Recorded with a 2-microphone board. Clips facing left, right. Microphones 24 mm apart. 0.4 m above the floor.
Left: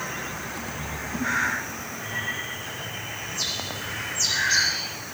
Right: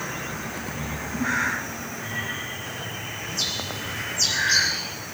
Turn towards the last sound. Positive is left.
turn(degrees=-70)  # may be behind; listen again after turning